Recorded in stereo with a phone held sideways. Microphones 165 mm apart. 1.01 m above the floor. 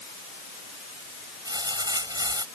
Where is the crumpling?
25° right (ahead or behind).